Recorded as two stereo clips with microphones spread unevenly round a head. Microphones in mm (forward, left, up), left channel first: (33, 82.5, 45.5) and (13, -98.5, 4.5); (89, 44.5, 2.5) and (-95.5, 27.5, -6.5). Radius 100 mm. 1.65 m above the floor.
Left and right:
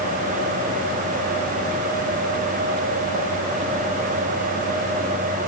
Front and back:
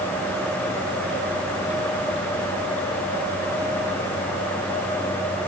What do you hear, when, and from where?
Only background noise.